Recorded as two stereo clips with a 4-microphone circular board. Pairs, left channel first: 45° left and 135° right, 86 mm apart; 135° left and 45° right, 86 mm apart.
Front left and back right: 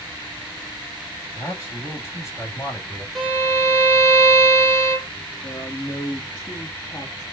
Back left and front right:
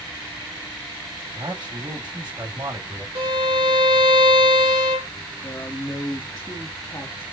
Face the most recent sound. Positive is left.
turn(degrees=85)